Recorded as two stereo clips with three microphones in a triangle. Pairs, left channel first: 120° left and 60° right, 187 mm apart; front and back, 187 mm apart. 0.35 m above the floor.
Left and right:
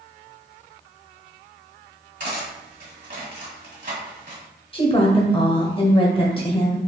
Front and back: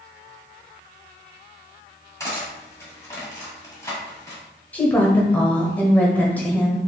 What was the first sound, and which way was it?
Cutlery clinking, 75° right.